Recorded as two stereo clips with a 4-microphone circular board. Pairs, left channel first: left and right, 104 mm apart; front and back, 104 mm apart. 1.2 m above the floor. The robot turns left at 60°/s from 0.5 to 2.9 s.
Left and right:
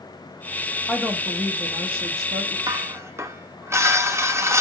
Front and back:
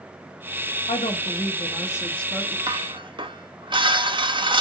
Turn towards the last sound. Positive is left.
turn(degrees=-150)